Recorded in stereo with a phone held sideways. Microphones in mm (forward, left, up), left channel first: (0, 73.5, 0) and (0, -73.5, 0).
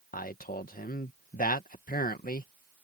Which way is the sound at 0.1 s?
75° left (ahead or behind).